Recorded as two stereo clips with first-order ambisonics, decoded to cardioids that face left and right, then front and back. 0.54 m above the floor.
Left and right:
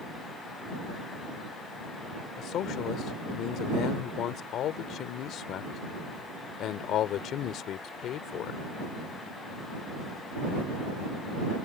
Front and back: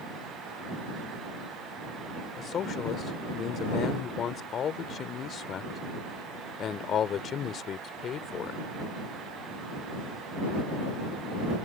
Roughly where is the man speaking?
Ahead left.